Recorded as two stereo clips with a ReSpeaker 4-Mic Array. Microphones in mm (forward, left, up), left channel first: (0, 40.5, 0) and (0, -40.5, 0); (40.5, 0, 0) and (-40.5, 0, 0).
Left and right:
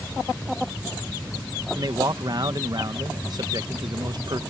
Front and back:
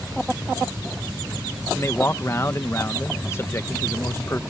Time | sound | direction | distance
1.8 | a man speaking | 55° right | ?